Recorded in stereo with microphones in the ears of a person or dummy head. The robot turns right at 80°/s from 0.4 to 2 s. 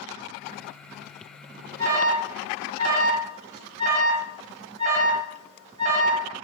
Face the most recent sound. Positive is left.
turn(degrees=-35)  # may be behind; listen again after turning